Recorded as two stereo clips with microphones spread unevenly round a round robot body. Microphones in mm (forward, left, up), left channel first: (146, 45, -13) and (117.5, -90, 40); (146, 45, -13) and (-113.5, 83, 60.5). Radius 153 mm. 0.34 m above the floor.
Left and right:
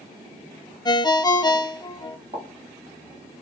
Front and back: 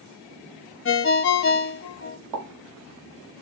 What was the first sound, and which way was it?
A ringtone, 25° left.